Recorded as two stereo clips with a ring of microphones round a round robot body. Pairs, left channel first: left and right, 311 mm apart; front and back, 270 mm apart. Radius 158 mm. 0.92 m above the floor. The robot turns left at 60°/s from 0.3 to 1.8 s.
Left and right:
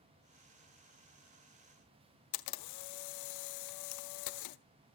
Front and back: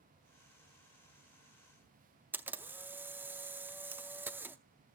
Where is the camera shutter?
100° left, 0.5 m.